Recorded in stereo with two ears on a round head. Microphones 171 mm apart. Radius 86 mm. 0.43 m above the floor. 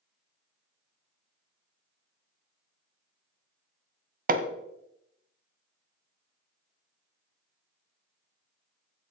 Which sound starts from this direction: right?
Hammering, at 4.3 s.